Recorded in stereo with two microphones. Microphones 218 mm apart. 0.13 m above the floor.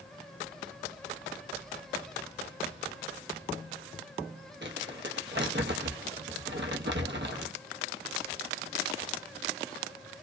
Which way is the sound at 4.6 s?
55° right (ahead or behind).